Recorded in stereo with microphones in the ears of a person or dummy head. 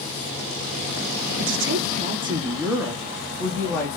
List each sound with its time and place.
1.4 s a woman speaking: 70° right (ahead or behind), 0.6 m; by 4.0 s 10° left (ahead or behind), 1.3 m